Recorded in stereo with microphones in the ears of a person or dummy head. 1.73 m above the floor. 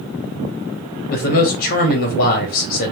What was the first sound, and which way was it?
A man speaking, 55° left (ahead or behind).